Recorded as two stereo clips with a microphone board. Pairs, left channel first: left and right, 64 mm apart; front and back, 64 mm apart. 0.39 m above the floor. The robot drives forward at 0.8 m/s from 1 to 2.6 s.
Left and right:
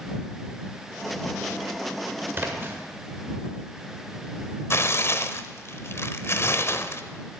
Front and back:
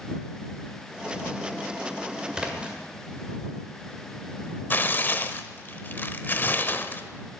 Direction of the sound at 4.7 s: 50° left.